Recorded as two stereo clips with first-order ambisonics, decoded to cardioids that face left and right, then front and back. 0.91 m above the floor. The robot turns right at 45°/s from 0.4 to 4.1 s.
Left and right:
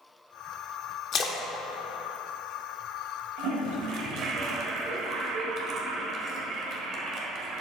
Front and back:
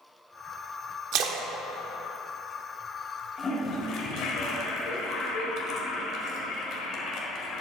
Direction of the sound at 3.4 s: 75° right.